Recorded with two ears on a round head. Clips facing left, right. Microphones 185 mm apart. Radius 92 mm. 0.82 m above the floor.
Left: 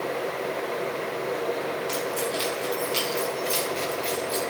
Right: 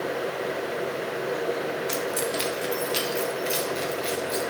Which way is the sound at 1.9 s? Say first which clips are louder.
Even; 25° right (ahead or behind).